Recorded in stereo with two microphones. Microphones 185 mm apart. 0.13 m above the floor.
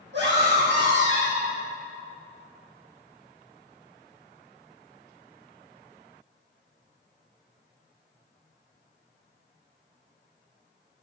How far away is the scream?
About 5.5 m.